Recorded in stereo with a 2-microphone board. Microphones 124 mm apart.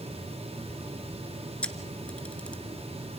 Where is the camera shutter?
10° left (ahead or behind), 1.5 m.